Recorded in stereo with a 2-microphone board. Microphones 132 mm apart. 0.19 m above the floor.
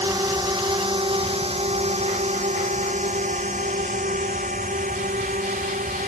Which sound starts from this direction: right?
A drone, at 0.0 s.